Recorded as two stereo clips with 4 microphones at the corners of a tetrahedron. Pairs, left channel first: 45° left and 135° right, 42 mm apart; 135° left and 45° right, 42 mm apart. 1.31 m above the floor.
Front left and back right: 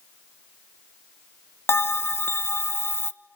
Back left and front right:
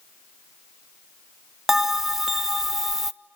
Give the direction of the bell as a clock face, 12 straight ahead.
11 o'clock.